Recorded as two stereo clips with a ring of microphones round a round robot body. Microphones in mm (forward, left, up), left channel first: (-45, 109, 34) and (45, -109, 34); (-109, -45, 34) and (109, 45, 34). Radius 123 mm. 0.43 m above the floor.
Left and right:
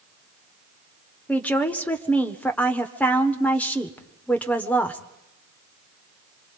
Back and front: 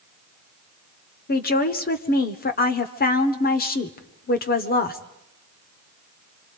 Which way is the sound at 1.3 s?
170° right.